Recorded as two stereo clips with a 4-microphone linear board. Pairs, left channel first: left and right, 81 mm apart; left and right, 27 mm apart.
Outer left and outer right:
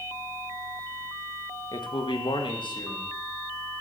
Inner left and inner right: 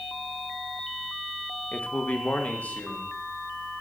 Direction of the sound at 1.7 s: 65° left (ahead or behind).